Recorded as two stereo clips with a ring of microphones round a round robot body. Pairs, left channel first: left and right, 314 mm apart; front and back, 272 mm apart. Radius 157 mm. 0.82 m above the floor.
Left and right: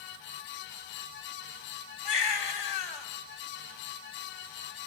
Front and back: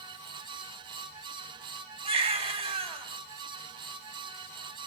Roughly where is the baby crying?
Left.